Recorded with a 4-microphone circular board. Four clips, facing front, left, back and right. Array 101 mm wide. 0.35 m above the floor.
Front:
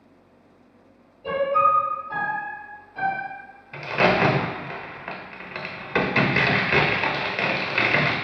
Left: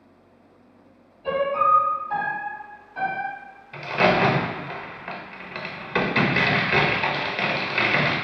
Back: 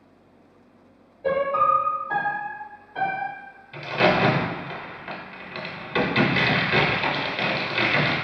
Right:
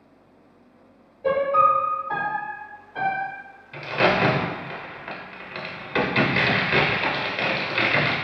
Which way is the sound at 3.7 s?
10° left.